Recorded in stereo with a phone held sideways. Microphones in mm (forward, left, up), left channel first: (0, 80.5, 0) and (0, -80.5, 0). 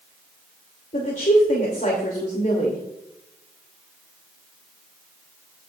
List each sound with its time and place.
0.9 s a woman speaking: 55° left (ahead or behind), 3 m